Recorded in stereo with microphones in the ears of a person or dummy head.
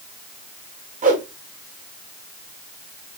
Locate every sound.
1.0 s a whoosh: 40° right (ahead or behind), 0.9 m